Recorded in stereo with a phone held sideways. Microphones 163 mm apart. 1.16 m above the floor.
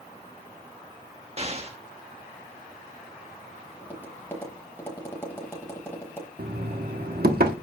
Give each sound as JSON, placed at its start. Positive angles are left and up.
{"t": 1.4, "sound": "an explosion", "side_deg": -40, "distance_m": 1.2}
{"t": 3.8, "sound": "tapping", "side_deg": 15, "distance_m": 5.0}
{"t": 6.4, "sound": "knocking", "side_deg": -70, "distance_m": 1.3}